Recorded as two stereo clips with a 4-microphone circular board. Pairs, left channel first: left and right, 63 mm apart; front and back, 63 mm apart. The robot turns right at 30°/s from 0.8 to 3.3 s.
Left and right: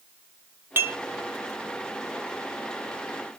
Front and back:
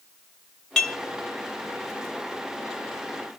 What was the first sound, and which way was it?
Dishes clattering, 70° right.